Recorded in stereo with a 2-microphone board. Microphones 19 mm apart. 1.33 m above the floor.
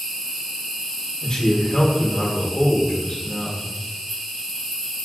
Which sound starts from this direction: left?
A man speaking, at 1.2 s.